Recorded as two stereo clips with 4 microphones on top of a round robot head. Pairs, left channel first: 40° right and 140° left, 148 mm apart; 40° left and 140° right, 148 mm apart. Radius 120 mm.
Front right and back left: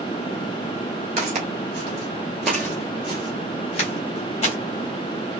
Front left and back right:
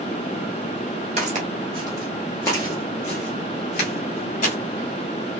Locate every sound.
1.2 s footsteps: straight behind, 0.9 m; by 4.5 s 5° left, 1.4 m